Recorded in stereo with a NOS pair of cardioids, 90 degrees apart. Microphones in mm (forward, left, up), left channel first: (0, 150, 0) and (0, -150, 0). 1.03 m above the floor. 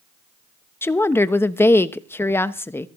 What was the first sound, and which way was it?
A woman speaking, 10° left.